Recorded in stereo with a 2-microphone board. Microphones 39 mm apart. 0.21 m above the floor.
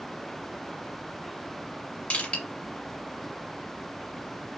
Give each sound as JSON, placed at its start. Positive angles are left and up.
{"t": 2.1, "sound": "crushing", "side_deg": 40, "distance_m": 2.0}